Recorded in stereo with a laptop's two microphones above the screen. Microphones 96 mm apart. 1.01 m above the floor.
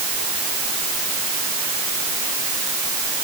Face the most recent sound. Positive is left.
No sound to turn to.